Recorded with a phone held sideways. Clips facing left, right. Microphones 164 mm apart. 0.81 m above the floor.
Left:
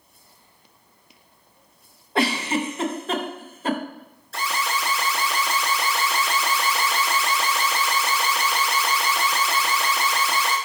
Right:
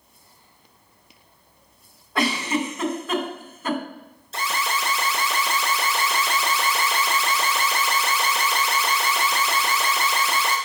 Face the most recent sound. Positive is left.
turn(degrees=-20)  # may be behind; listen again after turning